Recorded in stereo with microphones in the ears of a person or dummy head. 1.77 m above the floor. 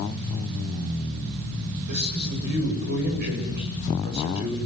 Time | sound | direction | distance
1.9 | a man speaking | 60° right (ahead or behind) | 8.5 m